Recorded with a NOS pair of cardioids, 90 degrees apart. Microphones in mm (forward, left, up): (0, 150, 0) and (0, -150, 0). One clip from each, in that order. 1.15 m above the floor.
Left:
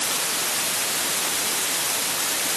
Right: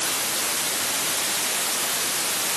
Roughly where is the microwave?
No microwave in this recording.